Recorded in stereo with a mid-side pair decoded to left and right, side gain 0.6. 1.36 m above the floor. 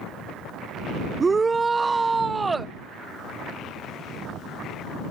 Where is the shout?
25° right.